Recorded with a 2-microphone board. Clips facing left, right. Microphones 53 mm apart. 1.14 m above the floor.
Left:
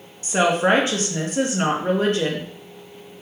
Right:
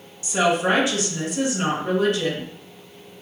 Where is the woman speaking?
40° left (ahead or behind), 0.8 m.